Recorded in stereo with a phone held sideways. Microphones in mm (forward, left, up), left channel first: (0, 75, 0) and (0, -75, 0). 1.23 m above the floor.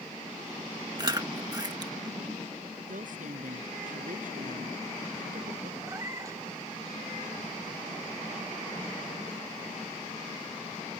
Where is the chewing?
30° right (ahead or behind).